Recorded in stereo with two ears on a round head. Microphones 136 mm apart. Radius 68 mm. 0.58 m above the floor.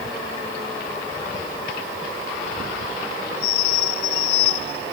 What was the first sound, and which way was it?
Only background noise.